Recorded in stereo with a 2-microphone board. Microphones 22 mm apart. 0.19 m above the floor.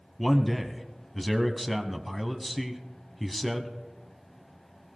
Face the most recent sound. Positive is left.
turn(degrees=5)  # may be behind; listen again after turning